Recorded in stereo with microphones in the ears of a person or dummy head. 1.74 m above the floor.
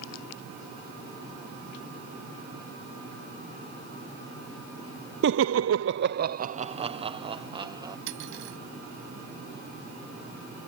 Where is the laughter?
65° right (ahead or behind); by 8.0 s 25° right (ahead or behind).